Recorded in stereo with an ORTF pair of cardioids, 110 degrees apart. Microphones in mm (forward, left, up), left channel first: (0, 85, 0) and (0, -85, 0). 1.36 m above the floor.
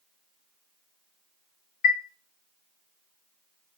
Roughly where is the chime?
Ahead left.